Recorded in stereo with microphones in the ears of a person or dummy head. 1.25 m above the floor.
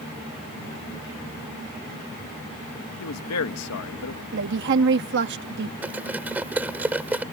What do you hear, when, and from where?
3.0 s a man speaking: 80° left
4.3 s a woman speaking: 60° right (ahead or behind)
5.8 s cutlery clinking: 10° right (ahead or behind)